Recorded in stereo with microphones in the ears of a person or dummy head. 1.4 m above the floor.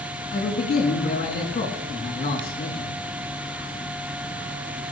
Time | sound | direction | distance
0.3 | a man speaking | 30° left (ahead or behind) | 3 m